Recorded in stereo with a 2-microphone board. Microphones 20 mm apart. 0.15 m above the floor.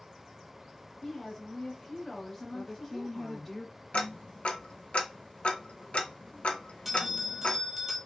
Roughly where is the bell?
Centre.